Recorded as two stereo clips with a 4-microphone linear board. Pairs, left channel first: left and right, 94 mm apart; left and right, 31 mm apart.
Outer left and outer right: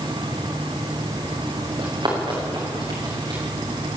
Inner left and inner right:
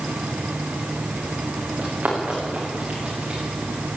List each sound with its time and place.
1.8 s running footsteps: 50° right (ahead or behind), 8.5 m; by 3.4 s 45° right (ahead or behind), 10.5 m